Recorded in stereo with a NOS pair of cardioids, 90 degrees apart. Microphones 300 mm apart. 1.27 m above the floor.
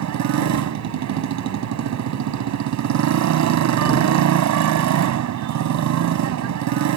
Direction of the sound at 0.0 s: 70° right.